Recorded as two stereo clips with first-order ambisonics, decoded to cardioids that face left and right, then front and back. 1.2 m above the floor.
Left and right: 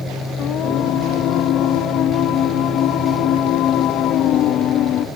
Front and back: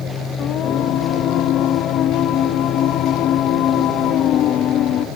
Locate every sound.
0.4 s singing: 45° left